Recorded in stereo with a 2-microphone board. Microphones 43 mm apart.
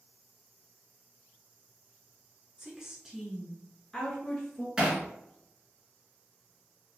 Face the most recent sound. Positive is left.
turn(degrees=-15)  # may be behind; listen again after turning